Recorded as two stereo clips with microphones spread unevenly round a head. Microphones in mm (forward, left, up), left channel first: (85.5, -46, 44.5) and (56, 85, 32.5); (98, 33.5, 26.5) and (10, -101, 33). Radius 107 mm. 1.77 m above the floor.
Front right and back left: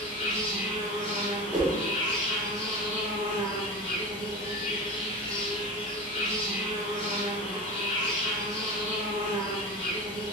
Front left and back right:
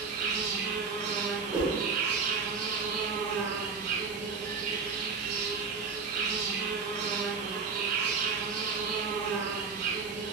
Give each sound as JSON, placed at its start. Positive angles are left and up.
{"t": 0.0, "sound": "an insect", "azimuth_deg": -125, "distance_m": 1.0}
{"t": 1.5, "sound": "a whoosh", "azimuth_deg": 165, "distance_m": 0.6}